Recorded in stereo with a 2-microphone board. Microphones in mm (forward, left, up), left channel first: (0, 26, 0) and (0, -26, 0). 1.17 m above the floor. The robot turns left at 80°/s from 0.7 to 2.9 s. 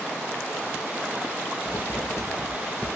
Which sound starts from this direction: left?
Writing, at 1.6 s.